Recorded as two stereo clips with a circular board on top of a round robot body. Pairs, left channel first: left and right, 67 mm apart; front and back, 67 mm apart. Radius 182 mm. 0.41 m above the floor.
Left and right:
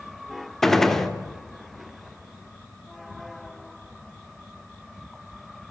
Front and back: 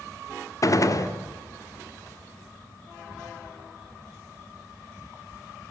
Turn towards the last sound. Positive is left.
turn(degrees=5)